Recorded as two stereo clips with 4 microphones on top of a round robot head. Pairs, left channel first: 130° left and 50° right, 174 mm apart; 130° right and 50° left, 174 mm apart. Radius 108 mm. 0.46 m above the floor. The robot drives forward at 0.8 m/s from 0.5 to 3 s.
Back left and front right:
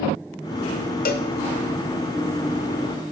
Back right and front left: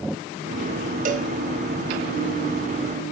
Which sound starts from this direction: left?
A cowbell, at 1.1 s.